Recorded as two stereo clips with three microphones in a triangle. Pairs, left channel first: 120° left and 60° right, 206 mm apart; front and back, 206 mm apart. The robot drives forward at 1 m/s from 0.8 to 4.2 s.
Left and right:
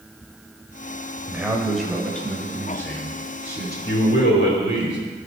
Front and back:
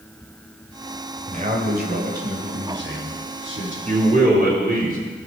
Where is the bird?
I don't hear a bird.